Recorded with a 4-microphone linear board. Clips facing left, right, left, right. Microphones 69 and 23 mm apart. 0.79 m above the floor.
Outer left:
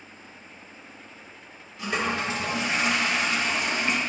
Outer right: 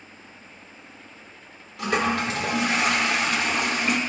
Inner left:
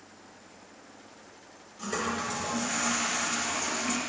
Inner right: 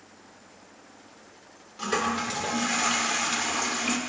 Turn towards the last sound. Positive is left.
turn(degrees=-70)  # may be behind; listen again after turning